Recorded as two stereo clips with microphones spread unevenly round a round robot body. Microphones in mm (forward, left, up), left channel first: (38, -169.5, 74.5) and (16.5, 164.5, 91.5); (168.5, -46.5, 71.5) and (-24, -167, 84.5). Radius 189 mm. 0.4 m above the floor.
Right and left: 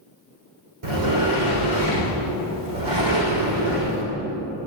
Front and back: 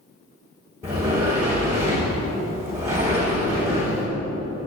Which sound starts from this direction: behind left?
A sliding door, at 0.8 s.